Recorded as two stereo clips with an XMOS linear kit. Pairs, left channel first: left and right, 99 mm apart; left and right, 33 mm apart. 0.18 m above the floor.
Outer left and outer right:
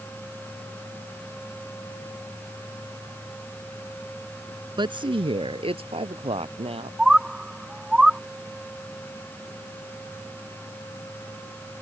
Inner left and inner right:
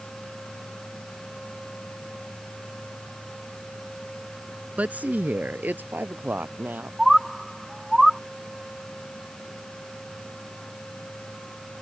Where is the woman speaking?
50° right (ahead or behind); by 6.9 s 75° right (ahead or behind).